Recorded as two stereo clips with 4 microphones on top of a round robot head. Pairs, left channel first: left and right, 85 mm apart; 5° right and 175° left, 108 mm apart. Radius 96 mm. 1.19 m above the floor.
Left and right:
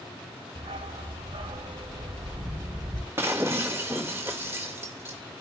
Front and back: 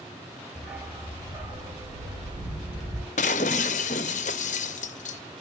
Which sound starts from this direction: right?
A dog barking, at 0.6 s.